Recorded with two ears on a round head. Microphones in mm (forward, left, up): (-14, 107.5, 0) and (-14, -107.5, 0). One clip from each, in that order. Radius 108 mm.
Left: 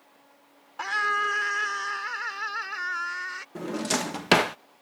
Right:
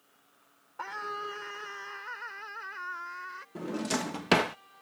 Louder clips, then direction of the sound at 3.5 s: Left 4 dB; 20° left (ahead or behind).